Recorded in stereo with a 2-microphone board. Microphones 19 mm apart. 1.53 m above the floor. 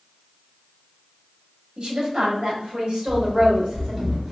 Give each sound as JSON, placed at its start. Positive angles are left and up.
{"t": 1.8, "sound": "a woman speaking", "side_deg": -55, "distance_m": 1.4}
{"t": 3.1, "sound": "running footsteps", "side_deg": -40, "distance_m": 1.9}